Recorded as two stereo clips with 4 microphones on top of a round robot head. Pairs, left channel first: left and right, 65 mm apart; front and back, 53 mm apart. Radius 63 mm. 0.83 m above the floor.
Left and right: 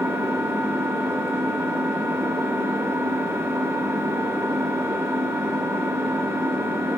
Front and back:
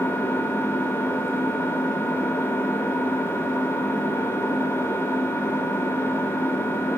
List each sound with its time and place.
0.0 s an engine running: 45° right, 1.1 m